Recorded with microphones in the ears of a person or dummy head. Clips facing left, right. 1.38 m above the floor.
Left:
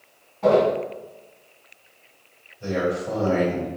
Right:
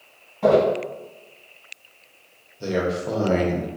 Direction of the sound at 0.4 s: 35° right (ahead or behind).